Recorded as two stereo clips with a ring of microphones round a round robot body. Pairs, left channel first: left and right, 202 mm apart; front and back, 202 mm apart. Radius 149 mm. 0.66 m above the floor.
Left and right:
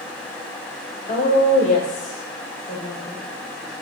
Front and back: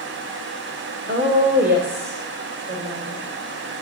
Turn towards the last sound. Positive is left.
turn(degrees=150)